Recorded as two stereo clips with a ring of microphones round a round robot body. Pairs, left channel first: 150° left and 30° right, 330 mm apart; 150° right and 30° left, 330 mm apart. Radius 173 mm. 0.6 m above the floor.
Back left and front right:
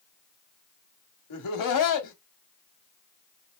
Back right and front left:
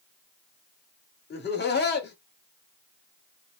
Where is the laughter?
155° left, 1.2 m.